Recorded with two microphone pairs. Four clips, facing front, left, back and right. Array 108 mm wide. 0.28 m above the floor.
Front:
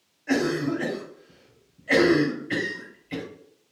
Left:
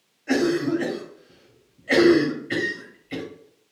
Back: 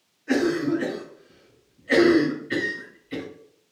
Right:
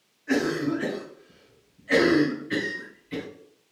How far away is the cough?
About 1.5 m.